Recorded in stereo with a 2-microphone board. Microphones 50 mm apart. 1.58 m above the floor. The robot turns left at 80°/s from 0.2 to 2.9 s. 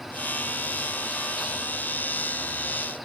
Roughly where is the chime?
I don't hear a chime.